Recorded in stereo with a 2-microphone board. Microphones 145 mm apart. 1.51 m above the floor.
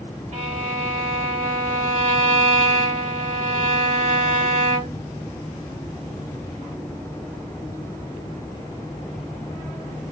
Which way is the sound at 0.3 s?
50° right (ahead or behind).